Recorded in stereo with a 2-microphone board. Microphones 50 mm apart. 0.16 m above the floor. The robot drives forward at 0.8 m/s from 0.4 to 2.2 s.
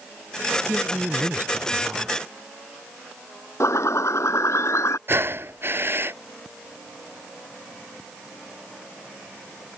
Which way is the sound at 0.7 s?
40° right (ahead or behind).